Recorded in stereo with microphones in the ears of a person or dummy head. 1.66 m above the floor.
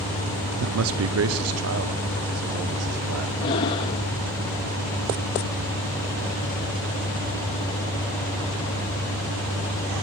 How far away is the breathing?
About 1.0 m.